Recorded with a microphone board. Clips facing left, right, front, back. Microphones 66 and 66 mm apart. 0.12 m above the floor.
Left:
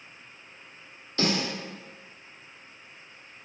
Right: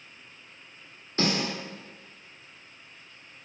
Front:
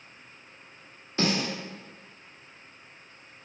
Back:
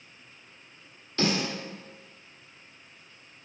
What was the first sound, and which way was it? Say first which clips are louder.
A snare drum: even, even; 60° right.